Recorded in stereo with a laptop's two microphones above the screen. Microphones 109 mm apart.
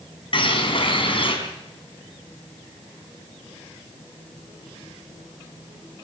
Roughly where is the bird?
Left.